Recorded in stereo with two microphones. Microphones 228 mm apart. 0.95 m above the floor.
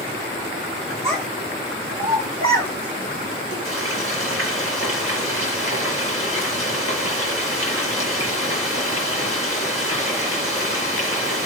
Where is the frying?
65° right (ahead or behind), 5.5 m.